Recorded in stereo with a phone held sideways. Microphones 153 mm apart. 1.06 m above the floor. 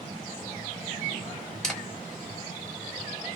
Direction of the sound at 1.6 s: 5° left (ahead or behind).